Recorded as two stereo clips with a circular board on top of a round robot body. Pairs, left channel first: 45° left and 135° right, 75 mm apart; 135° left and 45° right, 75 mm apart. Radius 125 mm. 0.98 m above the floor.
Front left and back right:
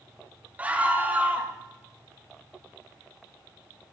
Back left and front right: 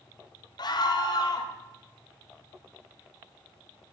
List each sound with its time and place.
0.6 s a scream: 155° left, 1.6 m